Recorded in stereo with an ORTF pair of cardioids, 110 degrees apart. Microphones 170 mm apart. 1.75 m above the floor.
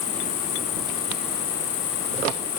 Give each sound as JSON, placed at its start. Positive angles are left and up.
{"t": 0.0, "sound": "an insect", "azimuth_deg": 65}